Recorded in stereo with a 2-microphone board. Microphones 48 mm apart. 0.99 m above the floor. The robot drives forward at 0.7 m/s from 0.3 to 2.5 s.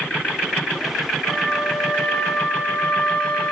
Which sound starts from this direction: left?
A flute, at 1.2 s.